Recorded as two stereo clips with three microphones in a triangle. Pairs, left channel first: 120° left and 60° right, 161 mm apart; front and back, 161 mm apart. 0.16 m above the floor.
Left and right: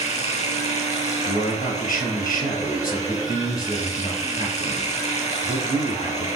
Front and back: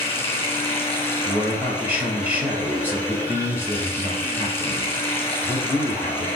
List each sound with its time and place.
0.0 s running water: 75° left, 1.5 m
1.2 s a man speaking: 100° left, 2.5 m